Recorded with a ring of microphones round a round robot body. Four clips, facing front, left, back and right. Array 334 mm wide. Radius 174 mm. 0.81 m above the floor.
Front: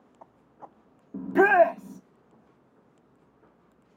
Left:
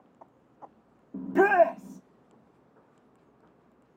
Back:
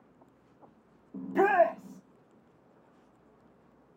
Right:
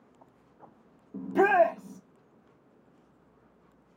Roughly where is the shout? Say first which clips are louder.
Left 1 dB, front 5 dB; ahead.